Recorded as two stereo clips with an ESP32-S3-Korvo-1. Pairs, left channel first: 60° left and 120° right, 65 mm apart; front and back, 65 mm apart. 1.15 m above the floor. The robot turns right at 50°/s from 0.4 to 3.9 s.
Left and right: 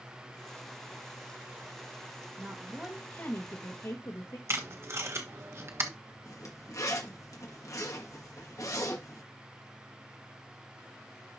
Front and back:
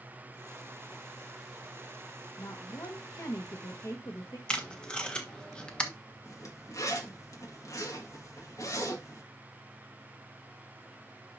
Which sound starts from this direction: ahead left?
A zipper, at 6.2 s.